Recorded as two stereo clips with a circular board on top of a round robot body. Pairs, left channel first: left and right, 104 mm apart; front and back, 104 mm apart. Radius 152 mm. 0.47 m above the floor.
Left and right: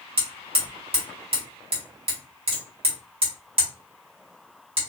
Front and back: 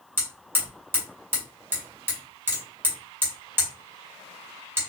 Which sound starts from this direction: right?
Hammering, at 0.2 s.